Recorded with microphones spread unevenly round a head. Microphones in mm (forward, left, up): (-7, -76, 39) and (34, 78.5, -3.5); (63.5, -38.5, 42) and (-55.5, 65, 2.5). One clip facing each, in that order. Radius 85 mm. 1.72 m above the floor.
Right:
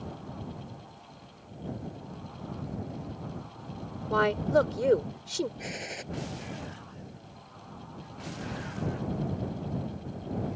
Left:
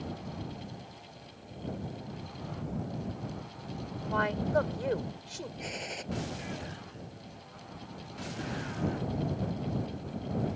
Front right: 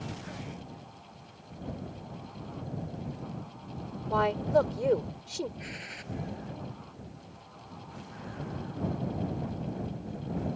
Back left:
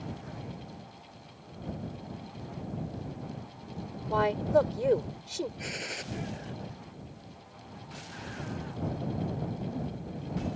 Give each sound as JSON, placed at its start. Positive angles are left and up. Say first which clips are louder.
{"t": 4.1, "sound": "a woman speaking", "louder": "right 5 dB, even", "azimuth_deg": -130}
{"t": 5.6, "sound": "a gunshot", "louder": "right 1 dB, back left 4 dB", "azimuth_deg": 175}